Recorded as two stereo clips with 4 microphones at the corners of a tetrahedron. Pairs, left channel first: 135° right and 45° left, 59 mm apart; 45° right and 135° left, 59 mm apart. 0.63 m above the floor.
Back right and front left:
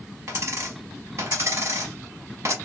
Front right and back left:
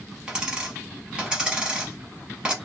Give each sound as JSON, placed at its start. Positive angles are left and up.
{"t": 0.3, "sound": "a dropped coin", "azimuth_deg": 60, "distance_m": 0.8}